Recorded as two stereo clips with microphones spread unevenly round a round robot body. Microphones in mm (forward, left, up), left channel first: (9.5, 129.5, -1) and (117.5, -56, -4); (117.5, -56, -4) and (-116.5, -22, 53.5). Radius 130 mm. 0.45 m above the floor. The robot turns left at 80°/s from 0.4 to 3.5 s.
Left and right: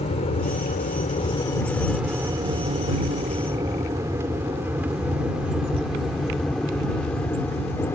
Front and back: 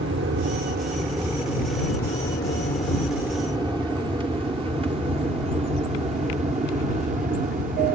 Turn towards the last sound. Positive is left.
turn(degrees=-175)